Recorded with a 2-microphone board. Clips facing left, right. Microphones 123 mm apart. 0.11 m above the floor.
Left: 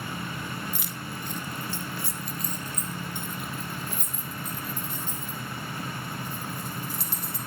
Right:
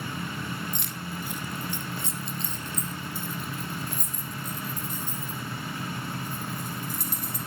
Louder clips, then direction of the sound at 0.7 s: Right 1 dB; 5° left (ahead or behind).